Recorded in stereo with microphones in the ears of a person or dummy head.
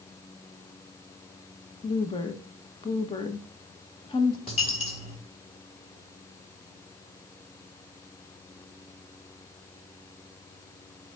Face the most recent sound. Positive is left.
turn(degrees=30)  # may be behind; listen again after turning